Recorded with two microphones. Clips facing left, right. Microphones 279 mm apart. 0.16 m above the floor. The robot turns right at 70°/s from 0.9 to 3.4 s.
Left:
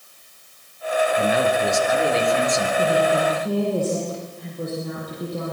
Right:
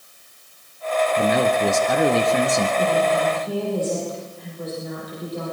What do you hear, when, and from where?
1.2 s a man speaking: 135° right, 3 m; by 2.7 s 30° right, 3 m
2.8 s a woman speaking: 10° left, 6.5 m; by 5.5 s 55° left, 6.5 m